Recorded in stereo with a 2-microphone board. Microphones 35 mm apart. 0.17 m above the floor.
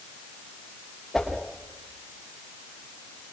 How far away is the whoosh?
About 7.5 m.